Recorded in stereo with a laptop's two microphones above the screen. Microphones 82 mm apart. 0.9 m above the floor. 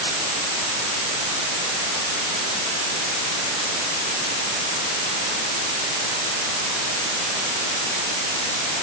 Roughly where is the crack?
No crack in this recording.